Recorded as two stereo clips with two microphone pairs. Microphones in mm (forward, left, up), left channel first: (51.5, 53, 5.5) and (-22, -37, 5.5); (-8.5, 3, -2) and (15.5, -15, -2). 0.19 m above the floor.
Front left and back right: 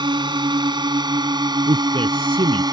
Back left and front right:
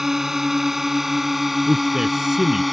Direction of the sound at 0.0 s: 110° right.